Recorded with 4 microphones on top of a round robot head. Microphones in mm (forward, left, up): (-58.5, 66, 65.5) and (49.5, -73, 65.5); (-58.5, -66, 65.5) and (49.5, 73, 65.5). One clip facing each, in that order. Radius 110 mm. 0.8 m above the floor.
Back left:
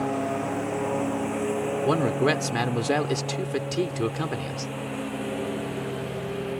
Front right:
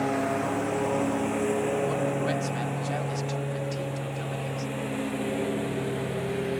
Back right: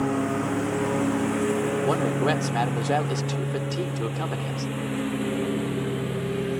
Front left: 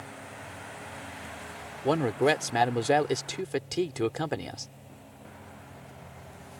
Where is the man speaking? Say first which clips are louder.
Back left 4 dB, front left 4 dB; 130° left.